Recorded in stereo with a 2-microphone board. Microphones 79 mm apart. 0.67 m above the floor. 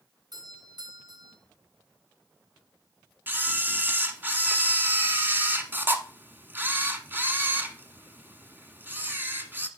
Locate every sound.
0.3 s a doorbell: 65° right (ahead or behind), 3.5 m
3.3 s a camera shutter: 25° right (ahead or behind), 1.1 m